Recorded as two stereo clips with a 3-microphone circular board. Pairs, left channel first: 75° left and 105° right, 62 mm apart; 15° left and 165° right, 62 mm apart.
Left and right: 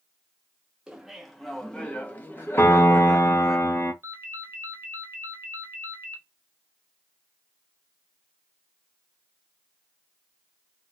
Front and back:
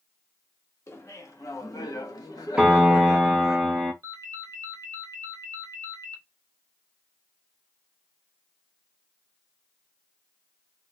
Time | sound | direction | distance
0.9 | laughter | 30° right | 1.2 m
2.6 | a piano | 120° left | 1.0 m
4.0 | a ringtone | 145° right | 0.7 m